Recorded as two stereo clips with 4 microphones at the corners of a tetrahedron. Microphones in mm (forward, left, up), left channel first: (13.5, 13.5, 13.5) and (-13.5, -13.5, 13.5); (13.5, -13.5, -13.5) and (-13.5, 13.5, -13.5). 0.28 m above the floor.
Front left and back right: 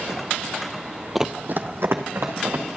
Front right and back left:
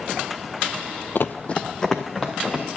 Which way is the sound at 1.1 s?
50° right.